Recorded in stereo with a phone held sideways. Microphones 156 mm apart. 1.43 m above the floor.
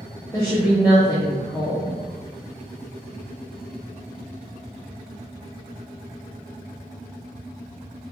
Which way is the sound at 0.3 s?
25° left (ahead or behind).